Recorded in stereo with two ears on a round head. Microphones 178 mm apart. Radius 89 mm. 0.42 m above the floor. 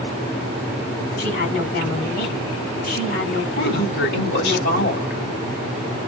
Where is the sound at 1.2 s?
50° left (ahead or behind), 2.5 m.